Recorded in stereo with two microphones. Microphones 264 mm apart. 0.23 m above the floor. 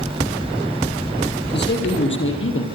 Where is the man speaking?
40° left (ahead or behind), 6.5 m; by 2.6 s 50° left (ahead or behind), 6.5 m.